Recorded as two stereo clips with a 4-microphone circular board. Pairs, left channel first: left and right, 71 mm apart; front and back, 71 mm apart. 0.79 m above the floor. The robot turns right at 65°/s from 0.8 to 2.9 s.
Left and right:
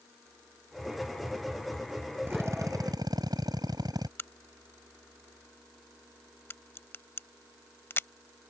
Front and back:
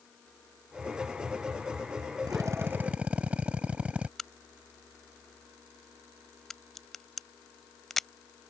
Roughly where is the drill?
Behind right.